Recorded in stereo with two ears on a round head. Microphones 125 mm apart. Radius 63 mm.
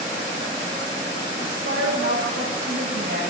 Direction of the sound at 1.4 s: 85° right.